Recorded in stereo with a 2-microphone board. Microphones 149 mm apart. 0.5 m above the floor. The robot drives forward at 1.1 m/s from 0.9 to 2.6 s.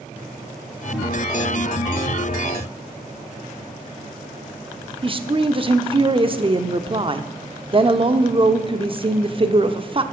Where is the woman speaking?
35° right (ahead or behind), 0.9 m.